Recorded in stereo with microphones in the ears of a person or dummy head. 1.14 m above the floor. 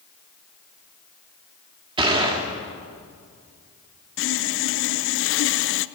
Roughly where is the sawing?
Left.